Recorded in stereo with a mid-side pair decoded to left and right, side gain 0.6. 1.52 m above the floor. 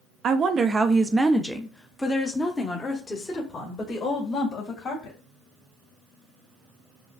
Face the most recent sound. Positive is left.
turn(degrees=40)